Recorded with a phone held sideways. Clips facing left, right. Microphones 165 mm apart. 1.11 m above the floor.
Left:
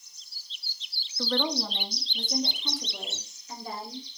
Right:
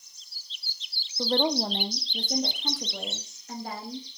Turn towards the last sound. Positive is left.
turn(degrees=-70)  # may be behind; listen again after turning